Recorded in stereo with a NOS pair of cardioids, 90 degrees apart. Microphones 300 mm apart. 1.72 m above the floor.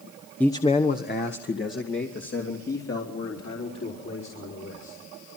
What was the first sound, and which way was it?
A man speaking, 5° left.